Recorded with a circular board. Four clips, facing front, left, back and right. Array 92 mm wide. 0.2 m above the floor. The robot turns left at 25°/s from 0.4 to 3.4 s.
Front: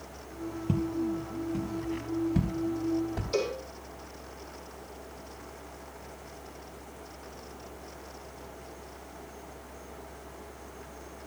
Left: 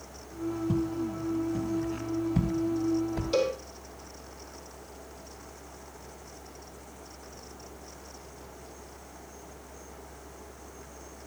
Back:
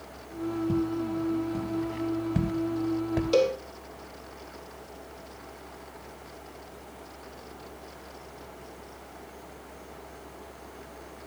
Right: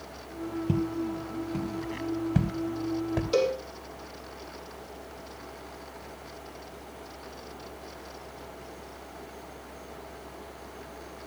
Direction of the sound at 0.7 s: 60° right.